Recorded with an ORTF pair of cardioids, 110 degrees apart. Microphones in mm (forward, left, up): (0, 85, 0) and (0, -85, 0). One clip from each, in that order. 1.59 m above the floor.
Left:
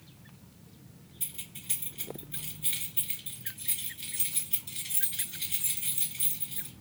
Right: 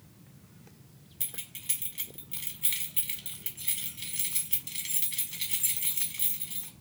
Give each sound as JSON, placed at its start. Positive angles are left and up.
{"t": 1.2, "sound": "keys jangling", "azimuth_deg": -70, "distance_m": 1.9}